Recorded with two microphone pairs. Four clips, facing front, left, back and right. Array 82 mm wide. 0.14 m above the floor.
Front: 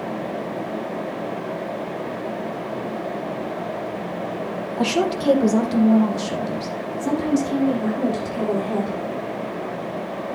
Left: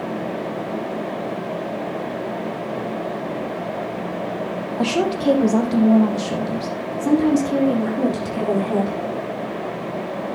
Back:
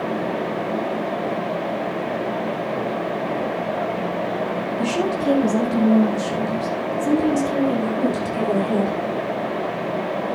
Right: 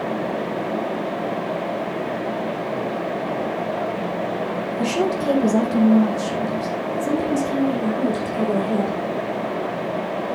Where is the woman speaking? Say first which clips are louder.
Left 1 dB, front 3 dB; 45° left, 5 m; by 9.0 s 85° left, 8.5 m.